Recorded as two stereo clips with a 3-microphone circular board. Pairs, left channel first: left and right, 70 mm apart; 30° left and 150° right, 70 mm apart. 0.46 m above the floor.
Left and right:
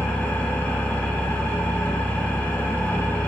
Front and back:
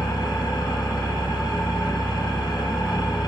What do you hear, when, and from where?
0.0 s an engine running: 25° left, 1.7 m